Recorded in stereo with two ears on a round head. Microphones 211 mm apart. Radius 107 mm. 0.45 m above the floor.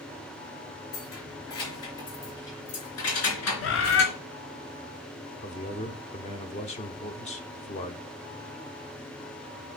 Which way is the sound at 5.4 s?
30° left (ahead or behind).